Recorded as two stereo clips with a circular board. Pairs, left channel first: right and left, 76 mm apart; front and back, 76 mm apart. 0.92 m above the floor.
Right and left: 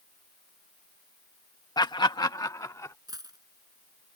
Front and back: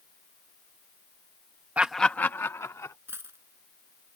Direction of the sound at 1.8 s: 110° right.